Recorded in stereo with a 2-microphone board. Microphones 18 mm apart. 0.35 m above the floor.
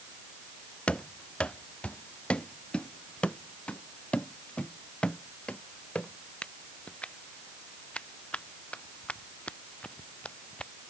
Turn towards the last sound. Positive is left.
turn(degrees=90)